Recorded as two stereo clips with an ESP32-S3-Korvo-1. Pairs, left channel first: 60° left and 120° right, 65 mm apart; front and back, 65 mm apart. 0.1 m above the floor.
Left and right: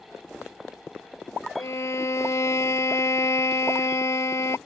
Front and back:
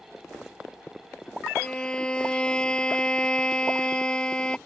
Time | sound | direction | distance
1.6 | a violin | 70° left | ?